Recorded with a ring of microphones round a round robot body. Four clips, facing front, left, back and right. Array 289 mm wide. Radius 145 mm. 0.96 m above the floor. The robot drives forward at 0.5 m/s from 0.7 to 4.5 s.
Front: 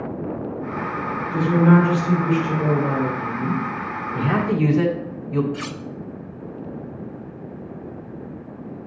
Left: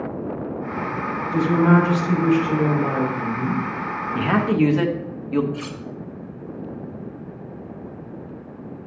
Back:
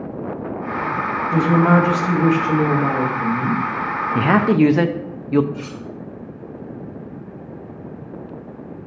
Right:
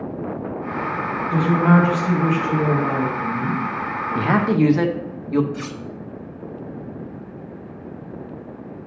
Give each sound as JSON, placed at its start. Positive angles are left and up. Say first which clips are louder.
{"t": 1.3, "sound": "a woman speaking", "louder": "even, back 1 dB", "azimuth_deg": -150, "distance_m": 1.1}
{"t": 4.2, "sound": "a man speaking", "louder": "right 1 dB, back 6 dB", "azimuth_deg": -165, "distance_m": 0.6}
{"t": 5.5, "sound": "cutlery clinking", "louder": "right 1 dB, even", "azimuth_deg": -15, "distance_m": 0.6}